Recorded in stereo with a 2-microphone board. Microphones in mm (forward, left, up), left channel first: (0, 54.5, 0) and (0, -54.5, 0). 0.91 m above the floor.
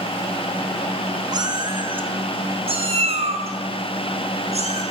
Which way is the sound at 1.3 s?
40° right (ahead or behind).